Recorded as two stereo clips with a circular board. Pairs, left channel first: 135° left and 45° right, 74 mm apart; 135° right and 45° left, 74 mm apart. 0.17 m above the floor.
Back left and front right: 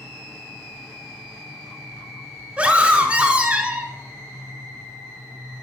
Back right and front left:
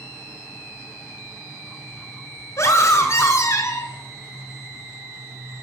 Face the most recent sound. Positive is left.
turn(degrees=-110)